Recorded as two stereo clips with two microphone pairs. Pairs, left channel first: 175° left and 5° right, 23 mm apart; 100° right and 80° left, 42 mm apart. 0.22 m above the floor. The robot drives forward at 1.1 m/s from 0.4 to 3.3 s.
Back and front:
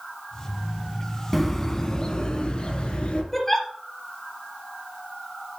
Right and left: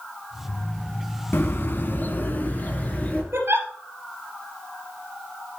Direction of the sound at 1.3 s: 95° right.